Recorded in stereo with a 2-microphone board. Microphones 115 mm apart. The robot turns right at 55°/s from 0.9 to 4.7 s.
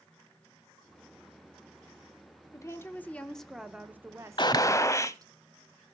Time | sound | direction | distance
2.5 | a woman speaking | 125° left | 1.0 m
4.4 | a gunshot | 45° left (ahead or behind) | 0.6 m